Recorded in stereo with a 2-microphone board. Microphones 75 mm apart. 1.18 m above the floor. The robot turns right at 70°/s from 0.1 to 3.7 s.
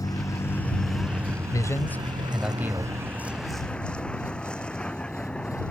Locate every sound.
0.0 s a vehicle: 120° left; by 5.7 s 15° left
1.5 s a man speaking: 125° left; by 2.9 s 135° right